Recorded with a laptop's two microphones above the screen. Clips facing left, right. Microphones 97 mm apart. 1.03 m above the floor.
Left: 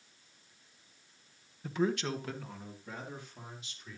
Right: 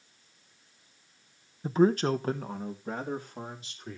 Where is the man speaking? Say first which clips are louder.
Right 8 dB; 30° right (ahead or behind), 0.6 m; by 4.0 s 40° right (ahead or behind), 3 m.